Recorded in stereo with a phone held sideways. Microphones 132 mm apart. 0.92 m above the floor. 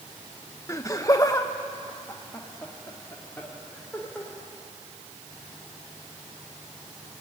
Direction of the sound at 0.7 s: 25° left (ahead or behind).